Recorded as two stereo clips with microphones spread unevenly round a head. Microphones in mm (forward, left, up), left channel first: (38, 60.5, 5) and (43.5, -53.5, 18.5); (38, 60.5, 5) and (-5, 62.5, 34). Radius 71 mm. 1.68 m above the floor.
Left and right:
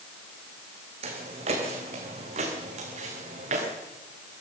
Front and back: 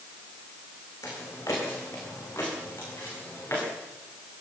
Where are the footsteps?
70° right, 4 m; by 3.6 s 75° right, 7 m.